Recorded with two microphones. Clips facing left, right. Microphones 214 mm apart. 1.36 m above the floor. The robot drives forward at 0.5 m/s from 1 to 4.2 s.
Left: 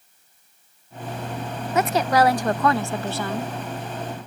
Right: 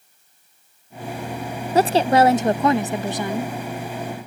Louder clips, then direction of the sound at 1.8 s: Right 4 dB; 35° right (ahead or behind).